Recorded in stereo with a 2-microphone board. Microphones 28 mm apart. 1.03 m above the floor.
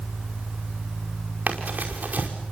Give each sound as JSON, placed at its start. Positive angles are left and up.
{"t": 1.5, "sound": "running footsteps", "side_deg": -65, "distance_m": 5.0}